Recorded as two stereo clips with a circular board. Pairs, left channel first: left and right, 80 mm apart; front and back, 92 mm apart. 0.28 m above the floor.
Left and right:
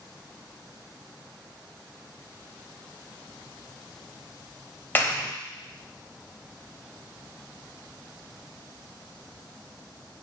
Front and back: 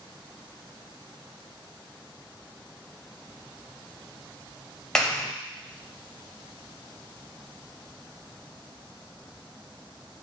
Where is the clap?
75° left, 0.7 m.